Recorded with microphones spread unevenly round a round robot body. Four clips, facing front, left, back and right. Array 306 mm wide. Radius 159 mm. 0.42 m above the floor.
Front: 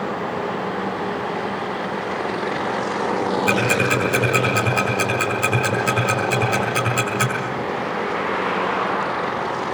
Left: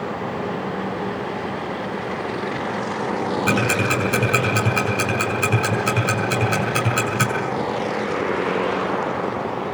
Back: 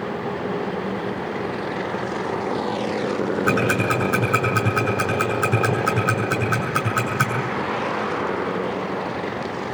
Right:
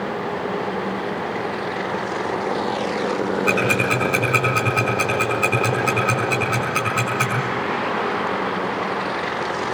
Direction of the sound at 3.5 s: 130° left.